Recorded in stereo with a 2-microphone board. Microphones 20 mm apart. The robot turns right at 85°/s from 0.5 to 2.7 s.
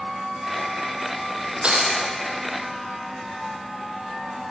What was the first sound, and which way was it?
Breaking glass, 85° right.